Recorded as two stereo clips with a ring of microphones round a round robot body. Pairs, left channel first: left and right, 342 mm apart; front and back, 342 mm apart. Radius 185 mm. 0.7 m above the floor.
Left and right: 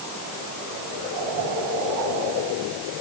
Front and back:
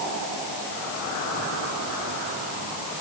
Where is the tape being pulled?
No tape being pulled in this recording.